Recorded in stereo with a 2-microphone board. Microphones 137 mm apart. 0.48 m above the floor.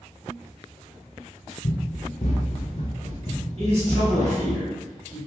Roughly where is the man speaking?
Right.